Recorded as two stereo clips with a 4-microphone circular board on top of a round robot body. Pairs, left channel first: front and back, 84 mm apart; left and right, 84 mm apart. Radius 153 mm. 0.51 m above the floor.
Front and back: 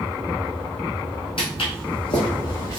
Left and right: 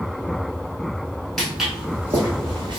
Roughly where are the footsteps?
Ahead.